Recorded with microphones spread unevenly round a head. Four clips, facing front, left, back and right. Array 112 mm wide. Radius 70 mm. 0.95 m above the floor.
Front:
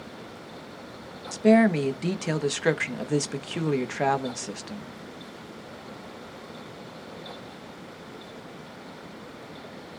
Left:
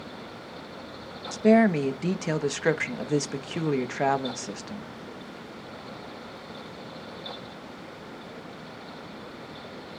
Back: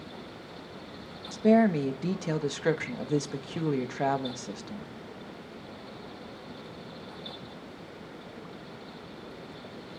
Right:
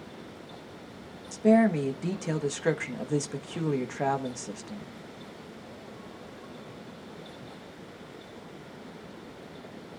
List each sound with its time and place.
1.3 s a woman speaking: 45° left, 1.1 m